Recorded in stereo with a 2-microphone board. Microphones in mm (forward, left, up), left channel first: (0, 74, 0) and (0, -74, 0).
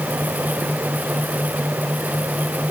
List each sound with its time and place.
Only background noise.